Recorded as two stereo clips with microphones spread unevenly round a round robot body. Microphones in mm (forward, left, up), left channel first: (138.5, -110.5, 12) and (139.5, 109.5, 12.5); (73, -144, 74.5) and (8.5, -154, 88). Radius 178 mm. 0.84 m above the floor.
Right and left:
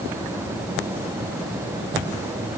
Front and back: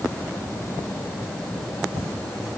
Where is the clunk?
I don't hear a clunk.